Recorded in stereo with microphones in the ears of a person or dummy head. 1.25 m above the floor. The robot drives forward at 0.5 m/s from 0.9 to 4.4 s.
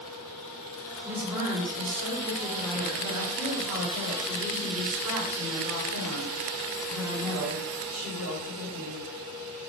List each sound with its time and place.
1.1 s a woman speaking: 15° right (ahead or behind), 1.1 m; by 9.0 s 5° right (ahead or behind), 3 m